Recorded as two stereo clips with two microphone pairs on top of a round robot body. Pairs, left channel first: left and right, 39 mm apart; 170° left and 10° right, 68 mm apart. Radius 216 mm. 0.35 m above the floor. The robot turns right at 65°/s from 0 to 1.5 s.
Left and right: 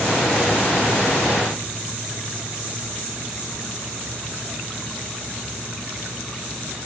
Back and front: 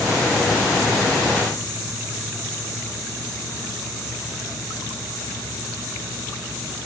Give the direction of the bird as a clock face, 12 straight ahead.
No bird in this recording.